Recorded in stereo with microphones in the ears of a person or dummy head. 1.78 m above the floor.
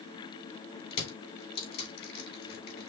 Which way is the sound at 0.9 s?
65° left (ahead or behind).